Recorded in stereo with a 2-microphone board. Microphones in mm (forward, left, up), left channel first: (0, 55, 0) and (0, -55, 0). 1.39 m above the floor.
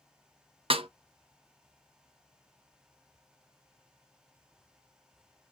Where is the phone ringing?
I don't hear a phone ringing.